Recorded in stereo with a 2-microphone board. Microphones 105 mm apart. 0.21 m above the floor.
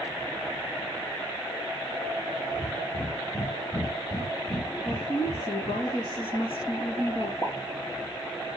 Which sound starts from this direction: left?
A woman speaking, at 4.8 s.